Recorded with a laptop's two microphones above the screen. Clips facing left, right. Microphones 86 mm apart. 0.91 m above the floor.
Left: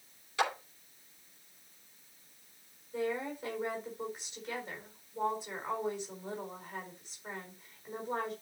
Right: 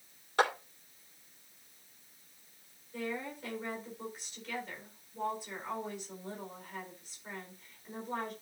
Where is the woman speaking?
20° left (ahead or behind), 4 m.